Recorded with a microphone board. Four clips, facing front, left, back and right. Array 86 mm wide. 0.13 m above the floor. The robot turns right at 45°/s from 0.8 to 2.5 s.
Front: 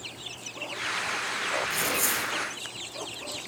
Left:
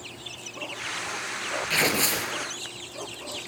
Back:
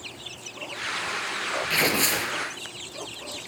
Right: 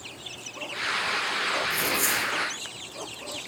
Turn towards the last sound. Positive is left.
turn(degrees=170)